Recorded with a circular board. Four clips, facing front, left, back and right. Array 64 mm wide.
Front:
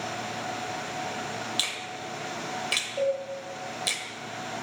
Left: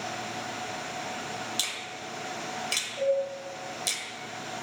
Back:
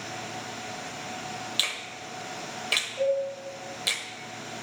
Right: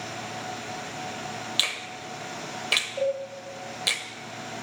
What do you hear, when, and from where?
1.6 s a finger snap: 105° right, 0.7 m
3.0 s a cowbell: 40° right, 2.5 m